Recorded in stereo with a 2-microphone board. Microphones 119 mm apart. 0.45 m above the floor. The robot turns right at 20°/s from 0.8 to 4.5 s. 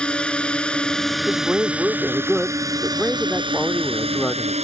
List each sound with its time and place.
0.0 s a drone: 170° left; by 4.7 s 115° right
1.3 s a man speaking: 10° right (ahead or behind); by 4.5 s 10° left (ahead or behind)